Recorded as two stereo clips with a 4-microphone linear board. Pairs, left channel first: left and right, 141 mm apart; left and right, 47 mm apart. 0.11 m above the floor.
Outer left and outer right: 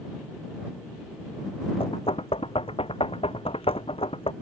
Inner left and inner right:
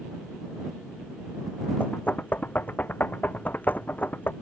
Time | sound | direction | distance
1.8 | knocking | 40° left (ahead or behind) | ?